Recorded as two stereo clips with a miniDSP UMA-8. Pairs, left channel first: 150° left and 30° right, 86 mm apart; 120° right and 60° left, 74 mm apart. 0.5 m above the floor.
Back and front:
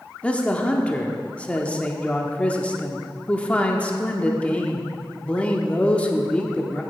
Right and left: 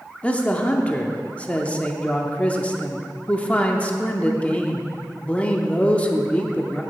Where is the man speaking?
160° right, 0.7 m.